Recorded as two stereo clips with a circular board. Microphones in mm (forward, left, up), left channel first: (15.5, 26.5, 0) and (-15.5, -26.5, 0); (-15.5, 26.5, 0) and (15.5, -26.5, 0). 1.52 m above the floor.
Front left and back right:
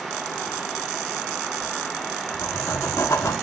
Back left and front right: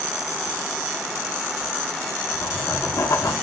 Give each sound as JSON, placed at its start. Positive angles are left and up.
{"t": 1.6, "sound": "writing", "azimuth_deg": 100, "distance_m": 1.2}